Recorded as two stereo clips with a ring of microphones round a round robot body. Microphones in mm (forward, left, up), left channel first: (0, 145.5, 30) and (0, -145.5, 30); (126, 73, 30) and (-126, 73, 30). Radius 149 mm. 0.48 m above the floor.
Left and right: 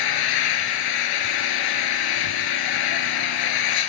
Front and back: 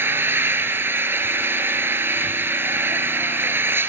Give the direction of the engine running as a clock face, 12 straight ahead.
9 o'clock.